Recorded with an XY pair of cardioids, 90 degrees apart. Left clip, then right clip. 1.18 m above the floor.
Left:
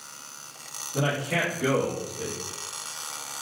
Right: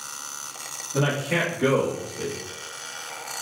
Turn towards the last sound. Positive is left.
turn(degrees=-45)